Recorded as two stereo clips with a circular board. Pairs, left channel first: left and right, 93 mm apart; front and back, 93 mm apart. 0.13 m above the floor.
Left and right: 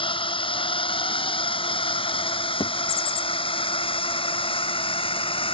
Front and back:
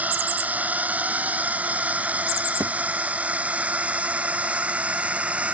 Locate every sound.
0.0 s a drone: 105° left
2.6 s a thud: 120° left